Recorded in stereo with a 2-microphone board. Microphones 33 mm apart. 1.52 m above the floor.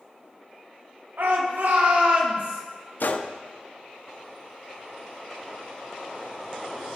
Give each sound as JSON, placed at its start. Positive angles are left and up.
{"t": 1.2, "sound": "a shout", "side_deg": -80, "distance_m": 1.9}
{"t": 3.0, "sound": "a gunshot", "side_deg": 65, "distance_m": 0.5}